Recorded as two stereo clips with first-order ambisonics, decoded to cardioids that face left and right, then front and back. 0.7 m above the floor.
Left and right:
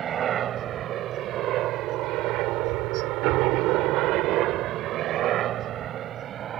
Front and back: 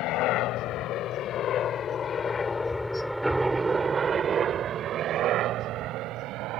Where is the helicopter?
35° right; by 6.6 s 145° right.